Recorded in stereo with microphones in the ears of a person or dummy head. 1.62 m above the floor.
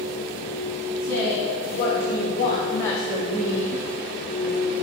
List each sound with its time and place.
1.0 s a woman speaking: 50° left (ahead or behind), 2.5 m; by 4.8 s 85° right, 1.5 m